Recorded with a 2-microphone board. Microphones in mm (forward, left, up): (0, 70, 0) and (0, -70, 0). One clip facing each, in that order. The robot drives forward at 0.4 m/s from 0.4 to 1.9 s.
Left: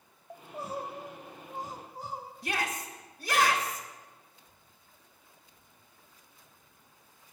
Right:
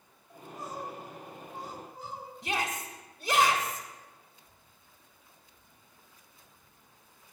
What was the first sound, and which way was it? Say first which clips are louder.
Crying: left 3 dB; 65° left (ahead or behind).